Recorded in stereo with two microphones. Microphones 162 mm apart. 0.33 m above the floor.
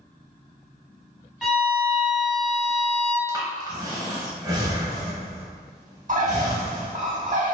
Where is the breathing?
25° right (ahead or behind), 1.0 m.